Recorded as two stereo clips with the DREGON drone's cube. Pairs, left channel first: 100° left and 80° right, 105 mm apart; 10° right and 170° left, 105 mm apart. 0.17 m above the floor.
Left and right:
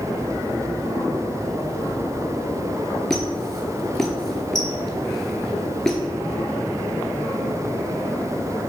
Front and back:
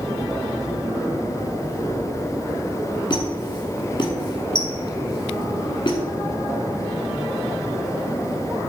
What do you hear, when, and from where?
3.1 s a squeak: 15° left, 0.8 m